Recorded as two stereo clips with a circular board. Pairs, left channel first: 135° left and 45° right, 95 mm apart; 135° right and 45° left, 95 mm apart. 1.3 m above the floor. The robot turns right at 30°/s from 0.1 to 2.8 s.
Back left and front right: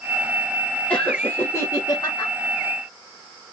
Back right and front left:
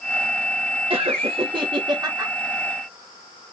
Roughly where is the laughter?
Ahead left.